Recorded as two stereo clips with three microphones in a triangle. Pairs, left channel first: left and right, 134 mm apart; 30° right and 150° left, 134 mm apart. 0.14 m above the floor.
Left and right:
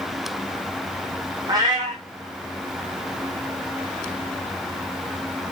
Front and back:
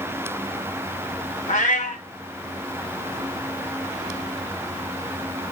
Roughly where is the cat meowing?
Ahead right.